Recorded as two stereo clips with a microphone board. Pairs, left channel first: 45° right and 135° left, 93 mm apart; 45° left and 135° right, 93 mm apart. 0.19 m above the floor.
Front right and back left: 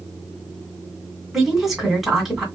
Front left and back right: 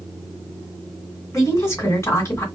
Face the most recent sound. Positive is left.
turn(degrees=50)